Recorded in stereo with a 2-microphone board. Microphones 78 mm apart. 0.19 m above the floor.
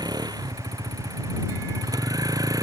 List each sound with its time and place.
0.0 s a vehicle: 60° right (ahead or behind); by 2.6 s 50° right (ahead or behind)